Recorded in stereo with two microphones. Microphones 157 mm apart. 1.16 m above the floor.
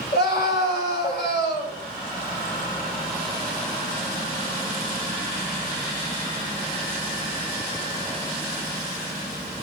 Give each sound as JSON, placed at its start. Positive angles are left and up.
{"t": 0.1, "sound": "a scream", "side_deg": 85, "distance_m": 5.5}